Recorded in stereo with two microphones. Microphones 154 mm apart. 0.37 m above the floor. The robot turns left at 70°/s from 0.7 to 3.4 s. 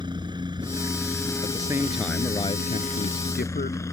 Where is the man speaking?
140° right; by 3.8 s 80° left.